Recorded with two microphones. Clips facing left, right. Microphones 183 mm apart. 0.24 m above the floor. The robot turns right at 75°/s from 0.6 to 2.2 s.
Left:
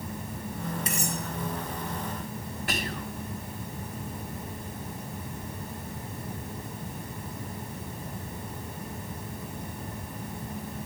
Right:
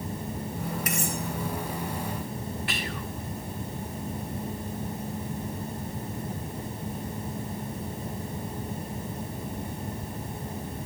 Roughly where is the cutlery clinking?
Left.